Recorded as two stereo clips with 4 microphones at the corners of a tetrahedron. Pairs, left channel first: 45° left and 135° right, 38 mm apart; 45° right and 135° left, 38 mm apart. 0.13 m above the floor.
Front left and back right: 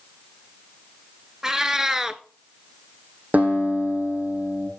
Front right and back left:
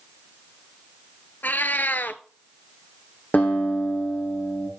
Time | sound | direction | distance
1.4 | a cat meowing | 60° right | 0.6 m
3.3 | a guitar | 90° right | 3 m